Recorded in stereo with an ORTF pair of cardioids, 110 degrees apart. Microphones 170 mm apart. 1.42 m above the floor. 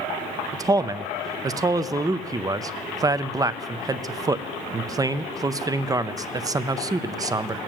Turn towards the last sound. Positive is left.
turn(degrees=-20)